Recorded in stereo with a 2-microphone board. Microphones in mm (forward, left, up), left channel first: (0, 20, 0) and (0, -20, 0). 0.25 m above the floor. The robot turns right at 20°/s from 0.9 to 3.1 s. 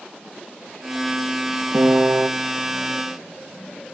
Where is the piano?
45° right (ahead or behind), 0.6 m; by 2.3 s 35° right (ahead or behind), 0.6 m.